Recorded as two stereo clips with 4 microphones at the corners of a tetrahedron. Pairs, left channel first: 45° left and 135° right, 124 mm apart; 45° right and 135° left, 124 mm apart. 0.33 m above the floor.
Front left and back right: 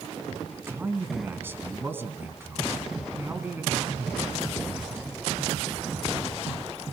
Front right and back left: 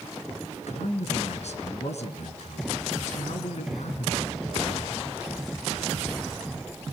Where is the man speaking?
65° right, 3 m.